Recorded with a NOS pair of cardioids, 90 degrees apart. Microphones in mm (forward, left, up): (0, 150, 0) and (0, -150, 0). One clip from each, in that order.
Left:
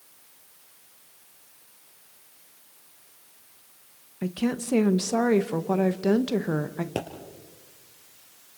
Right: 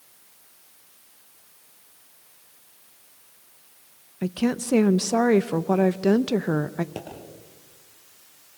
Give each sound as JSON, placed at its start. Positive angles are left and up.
{"t": 4.2, "sound": "a woman speaking", "azimuth_deg": -15, "distance_m": 0.8}
{"t": 7.0, "sound": "a pop", "azimuth_deg": 45, "distance_m": 4.0}